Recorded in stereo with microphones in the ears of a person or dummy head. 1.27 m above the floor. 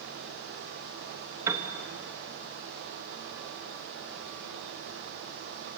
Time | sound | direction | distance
1.5 | a piano | 15° right (ahead or behind) | 2.5 m